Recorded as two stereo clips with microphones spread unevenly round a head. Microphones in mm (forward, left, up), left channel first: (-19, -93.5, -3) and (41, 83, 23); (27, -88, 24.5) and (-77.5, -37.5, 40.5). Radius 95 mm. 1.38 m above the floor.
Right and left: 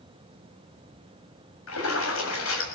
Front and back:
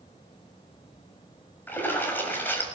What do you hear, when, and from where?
1.7 s a splash: 100° right, 7 m